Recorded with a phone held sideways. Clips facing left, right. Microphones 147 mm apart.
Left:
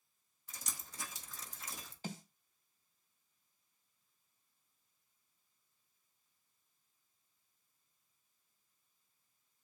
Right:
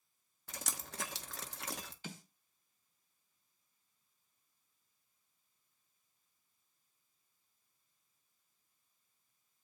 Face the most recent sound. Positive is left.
turn(degrees=40)  # may be behind; listen again after turning